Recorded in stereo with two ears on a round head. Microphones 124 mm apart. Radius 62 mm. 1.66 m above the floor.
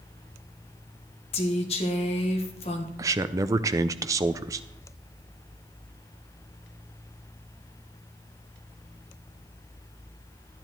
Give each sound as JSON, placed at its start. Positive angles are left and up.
{"t": 1.3, "sound": "a woman speaking", "side_deg": 45, "distance_m": 1.9}
{"t": 3.0, "sound": "a man speaking", "side_deg": -25, "distance_m": 0.6}